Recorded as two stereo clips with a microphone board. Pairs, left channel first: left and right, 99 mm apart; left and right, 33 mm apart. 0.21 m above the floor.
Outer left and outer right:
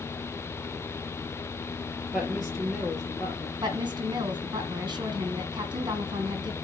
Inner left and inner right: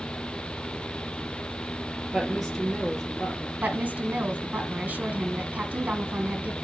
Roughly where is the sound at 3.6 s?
Right.